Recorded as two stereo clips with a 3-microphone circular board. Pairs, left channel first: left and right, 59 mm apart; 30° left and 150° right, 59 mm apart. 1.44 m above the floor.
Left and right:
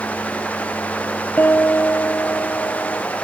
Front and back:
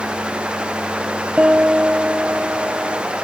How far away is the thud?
I don't hear a thud.